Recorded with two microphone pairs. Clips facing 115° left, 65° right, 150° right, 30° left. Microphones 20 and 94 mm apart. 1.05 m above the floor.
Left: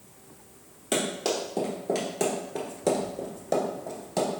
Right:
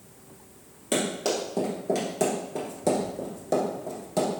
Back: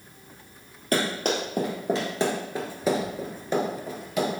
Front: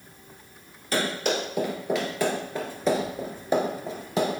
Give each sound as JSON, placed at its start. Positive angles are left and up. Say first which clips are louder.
{"t": 0.9, "sound": "running footsteps", "louder": "right 1 dB, back 1 dB", "azimuth_deg": -165, "distance_m": 1.6}